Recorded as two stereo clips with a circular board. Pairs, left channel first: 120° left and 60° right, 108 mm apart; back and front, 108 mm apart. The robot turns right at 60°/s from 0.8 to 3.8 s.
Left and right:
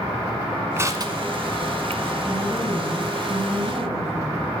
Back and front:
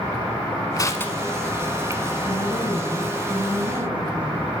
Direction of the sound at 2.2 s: 125° right.